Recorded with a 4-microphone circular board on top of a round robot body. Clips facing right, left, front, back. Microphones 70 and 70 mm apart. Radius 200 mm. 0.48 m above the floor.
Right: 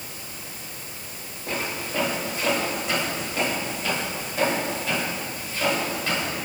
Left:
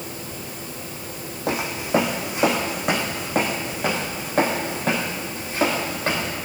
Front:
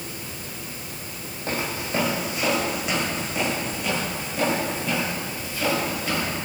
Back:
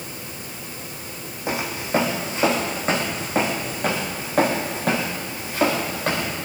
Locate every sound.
1.5 s footsteps: 105° left, 1.7 m; by 6.3 s 140° left, 4 m